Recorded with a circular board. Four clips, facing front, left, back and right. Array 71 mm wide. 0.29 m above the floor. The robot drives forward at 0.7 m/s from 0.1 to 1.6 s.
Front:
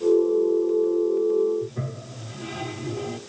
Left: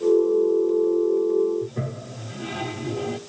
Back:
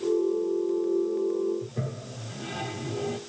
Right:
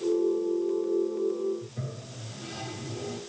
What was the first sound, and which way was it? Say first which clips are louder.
A toilet flushing: left 9 dB, front 2 dB; 95° left.